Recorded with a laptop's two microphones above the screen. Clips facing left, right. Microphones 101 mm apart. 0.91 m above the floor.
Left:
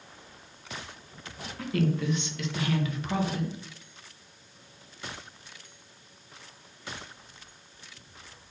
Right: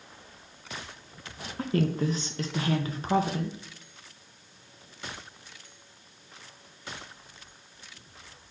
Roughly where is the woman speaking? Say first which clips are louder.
Right 1 dB; right.